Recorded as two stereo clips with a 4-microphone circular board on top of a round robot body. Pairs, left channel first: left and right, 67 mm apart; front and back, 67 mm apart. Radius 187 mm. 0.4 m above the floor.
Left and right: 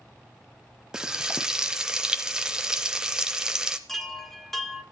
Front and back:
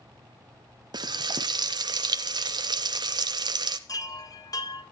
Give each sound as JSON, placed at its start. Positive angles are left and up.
{"t": 0.9, "sound": "frying", "azimuth_deg": -170, "distance_m": 0.6}
{"t": 3.9, "sound": "a chime", "azimuth_deg": 5, "distance_m": 2.5}